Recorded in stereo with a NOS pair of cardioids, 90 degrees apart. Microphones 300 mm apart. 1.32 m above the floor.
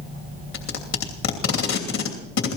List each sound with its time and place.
0.5 s tape being pulled: 60° left, 3 m